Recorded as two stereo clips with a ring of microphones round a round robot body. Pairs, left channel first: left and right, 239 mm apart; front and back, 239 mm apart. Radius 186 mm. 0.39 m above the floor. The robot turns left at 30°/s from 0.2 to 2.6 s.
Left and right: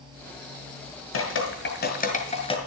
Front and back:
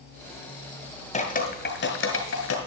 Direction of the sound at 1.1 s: 60° left.